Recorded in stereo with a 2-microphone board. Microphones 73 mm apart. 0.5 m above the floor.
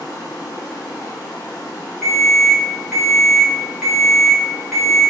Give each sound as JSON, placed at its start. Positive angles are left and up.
{"t": 0.0, "sound": "running water", "side_deg": 60, "distance_m": 1.1}
{"t": 2.0, "sound": "an alarm", "side_deg": -5, "distance_m": 1.4}